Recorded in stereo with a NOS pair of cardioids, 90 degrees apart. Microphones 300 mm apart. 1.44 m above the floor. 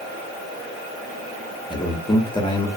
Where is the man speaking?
15° left, 0.9 m.